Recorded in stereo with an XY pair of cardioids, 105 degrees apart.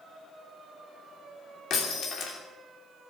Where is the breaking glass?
65° left, 3 m.